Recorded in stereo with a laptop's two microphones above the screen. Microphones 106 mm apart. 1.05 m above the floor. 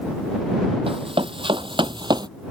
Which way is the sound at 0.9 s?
60° right (ahead or behind).